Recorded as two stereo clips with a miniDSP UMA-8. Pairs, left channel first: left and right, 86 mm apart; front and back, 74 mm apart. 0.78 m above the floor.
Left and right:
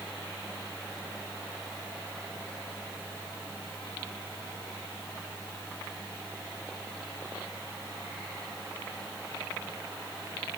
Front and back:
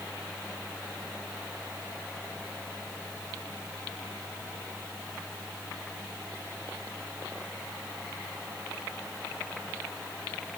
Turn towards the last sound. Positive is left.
No sound to turn to.